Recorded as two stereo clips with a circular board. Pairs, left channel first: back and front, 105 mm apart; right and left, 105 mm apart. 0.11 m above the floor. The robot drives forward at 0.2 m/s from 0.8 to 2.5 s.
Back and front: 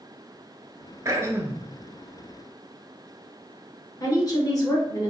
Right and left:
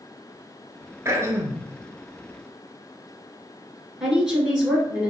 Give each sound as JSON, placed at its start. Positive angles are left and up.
{"t": 1.1, "sound": "throat clearing", "azimuth_deg": 40, "distance_m": 0.5}
{"t": 4.0, "sound": "a woman speaking", "azimuth_deg": 170, "distance_m": 1.4}